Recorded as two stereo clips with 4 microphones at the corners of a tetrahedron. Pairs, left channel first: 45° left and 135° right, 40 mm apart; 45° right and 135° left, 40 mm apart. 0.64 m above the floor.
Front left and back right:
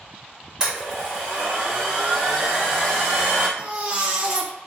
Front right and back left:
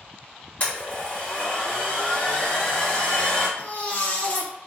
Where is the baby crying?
80° right, 0.5 m.